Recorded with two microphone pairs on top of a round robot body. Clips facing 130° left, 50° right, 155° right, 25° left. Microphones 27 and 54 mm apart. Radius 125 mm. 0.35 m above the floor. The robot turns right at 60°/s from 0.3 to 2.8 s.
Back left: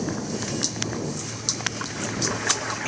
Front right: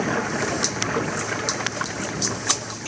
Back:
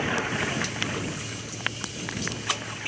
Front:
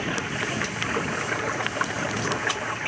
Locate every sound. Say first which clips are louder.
0.0 s running water: front right 5 dB, back 1 dB; 75° right; by 2.9 s 75° left